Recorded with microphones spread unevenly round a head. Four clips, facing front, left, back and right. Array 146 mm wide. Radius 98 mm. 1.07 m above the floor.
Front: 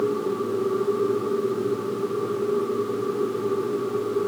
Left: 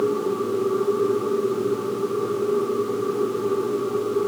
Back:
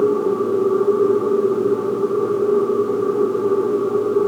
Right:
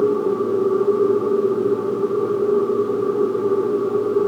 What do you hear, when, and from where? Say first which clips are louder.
0.0 s a machine running: right 4 dB, back 7 dB; 145° right